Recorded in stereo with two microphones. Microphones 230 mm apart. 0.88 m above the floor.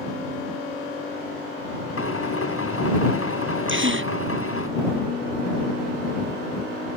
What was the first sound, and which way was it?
A drill, 75° left (ahead or behind).